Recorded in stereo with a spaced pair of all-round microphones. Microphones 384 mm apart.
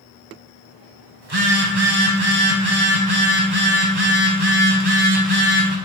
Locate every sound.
1.2 s a phone buzzing: 80° right, 1.7 m